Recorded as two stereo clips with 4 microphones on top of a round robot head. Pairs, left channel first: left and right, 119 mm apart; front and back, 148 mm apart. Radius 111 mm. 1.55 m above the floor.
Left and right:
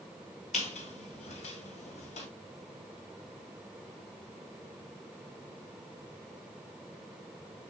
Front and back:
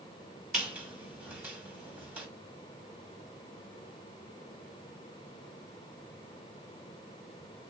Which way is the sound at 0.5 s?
100° left.